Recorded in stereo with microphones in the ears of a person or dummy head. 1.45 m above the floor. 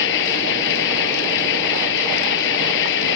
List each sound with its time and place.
0.0 s an engine running: 70° left (ahead or behind)